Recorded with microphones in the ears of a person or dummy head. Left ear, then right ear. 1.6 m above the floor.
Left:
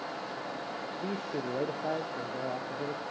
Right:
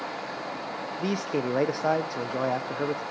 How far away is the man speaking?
About 0.7 m.